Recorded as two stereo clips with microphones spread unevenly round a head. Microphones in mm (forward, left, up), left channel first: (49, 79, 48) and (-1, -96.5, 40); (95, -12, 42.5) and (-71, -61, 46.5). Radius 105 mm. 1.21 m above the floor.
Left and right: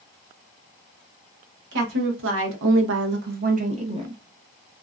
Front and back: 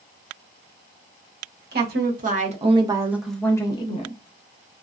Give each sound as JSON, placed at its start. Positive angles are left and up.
{"t": 1.7, "sound": "a woman speaking", "azimuth_deg": -135, "distance_m": 1.1}